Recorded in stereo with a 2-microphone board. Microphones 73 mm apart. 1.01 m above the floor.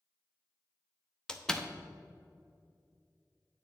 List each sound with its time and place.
1.3 s a door slam: 10° left (ahead or behind), 0.6 m